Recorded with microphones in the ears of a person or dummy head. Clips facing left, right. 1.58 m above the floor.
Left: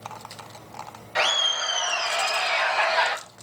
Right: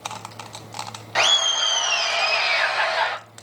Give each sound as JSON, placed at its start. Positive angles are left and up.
{"t": 1.1, "sound": "laughter", "side_deg": -60, "distance_m": 1.4}